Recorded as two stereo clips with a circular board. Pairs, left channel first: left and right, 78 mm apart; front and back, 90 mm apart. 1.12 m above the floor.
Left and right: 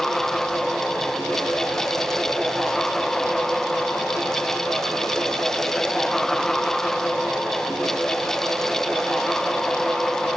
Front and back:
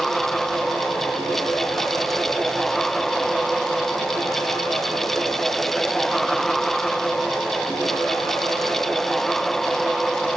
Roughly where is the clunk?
No clunk in this recording.